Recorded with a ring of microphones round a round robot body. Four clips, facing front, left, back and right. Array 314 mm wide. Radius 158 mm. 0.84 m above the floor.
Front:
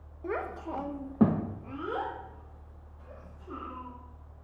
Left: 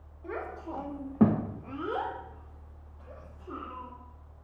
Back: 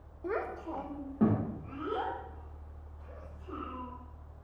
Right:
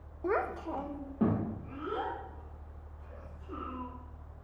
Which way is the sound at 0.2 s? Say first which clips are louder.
Right 6 dB, front 1 dB; 90° right.